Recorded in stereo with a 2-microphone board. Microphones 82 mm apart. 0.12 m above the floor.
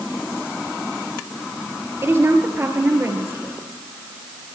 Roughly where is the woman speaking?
Right.